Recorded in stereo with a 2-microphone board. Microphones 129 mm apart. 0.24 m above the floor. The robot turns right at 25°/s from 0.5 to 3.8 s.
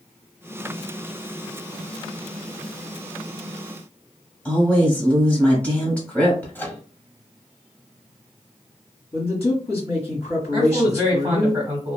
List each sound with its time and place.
4.5 s a woman speaking: 10° left (ahead or behind), 1.1 m
6.5 s a microwave: 15° left (ahead or behind), 0.7 m
9.1 s a man speaking: 50° left (ahead or behind), 1.6 m
10.5 s a man speaking: 10° right (ahead or behind), 1.3 m